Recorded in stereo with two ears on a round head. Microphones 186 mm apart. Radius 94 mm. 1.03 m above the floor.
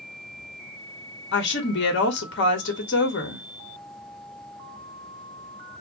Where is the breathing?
I don't hear breathing.